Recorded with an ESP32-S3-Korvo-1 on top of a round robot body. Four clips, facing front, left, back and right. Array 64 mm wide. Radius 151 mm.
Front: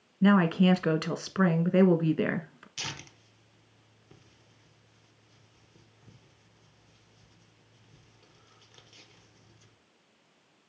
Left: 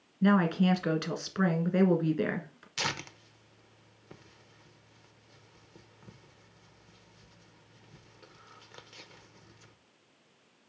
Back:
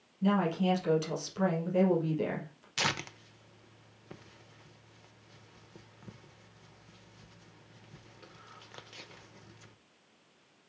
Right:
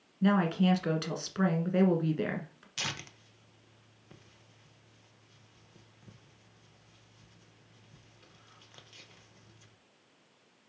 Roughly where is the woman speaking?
Ahead.